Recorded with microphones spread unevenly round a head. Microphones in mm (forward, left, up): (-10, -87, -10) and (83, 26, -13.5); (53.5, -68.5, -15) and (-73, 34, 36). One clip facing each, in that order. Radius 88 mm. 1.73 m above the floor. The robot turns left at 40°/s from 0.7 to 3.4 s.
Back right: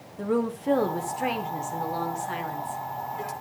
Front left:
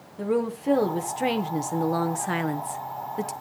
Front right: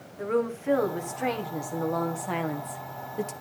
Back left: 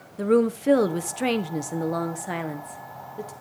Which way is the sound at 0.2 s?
135° left.